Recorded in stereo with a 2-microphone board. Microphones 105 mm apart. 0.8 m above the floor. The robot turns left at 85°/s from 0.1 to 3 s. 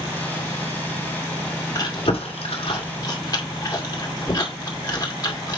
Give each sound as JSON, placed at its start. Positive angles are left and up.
{"t": 1.8, "sound": "chewing", "side_deg": 30, "distance_m": 2.0}